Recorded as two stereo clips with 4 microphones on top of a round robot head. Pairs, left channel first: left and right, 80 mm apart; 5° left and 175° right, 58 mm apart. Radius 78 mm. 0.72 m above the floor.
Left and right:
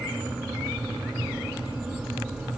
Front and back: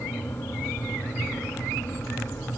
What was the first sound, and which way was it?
Only background noise.